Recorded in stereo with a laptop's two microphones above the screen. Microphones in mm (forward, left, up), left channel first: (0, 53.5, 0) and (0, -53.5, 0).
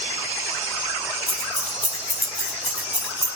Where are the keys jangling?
80° left, 1.4 m; by 3.3 s 85° left, 2.5 m.